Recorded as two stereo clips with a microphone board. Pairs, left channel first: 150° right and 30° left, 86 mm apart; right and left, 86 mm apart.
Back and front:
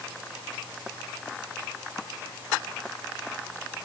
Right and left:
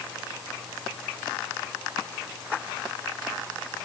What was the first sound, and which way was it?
Only background noise.